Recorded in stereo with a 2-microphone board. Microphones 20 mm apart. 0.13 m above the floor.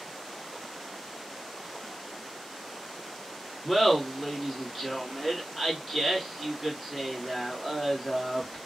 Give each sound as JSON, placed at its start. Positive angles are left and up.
{"t": 3.6, "sound": "laughter", "side_deg": -5, "distance_m": 1.3}